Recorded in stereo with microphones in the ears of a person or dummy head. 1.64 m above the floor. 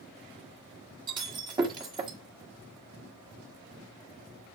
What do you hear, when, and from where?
1.1 s breaking glass: 25° right (ahead or behind), 1.6 m